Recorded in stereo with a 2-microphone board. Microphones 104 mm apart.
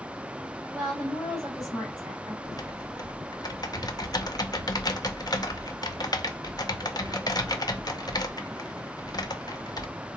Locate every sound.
0.7 s a woman speaking: 5° left (ahead or behind), 3 m
2.4 s typing on a keyboard: 40° left (ahead or behind), 0.6 m